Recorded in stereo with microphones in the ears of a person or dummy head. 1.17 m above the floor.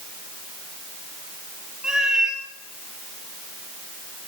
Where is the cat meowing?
5° right (ahead or behind), 3 m.